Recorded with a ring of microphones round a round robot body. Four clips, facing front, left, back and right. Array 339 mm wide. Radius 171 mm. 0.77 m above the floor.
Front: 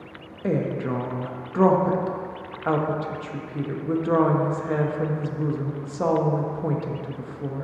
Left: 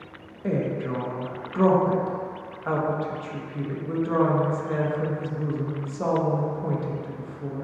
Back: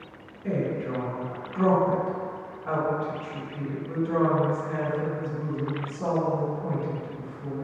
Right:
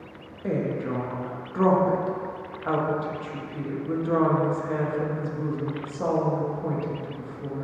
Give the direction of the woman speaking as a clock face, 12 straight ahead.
12 o'clock.